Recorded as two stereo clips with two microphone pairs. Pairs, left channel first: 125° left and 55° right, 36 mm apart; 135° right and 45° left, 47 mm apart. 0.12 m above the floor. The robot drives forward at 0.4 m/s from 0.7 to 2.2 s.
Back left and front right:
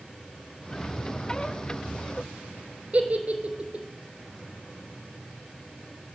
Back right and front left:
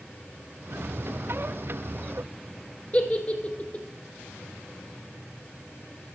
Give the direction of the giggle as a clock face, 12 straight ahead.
3 o'clock.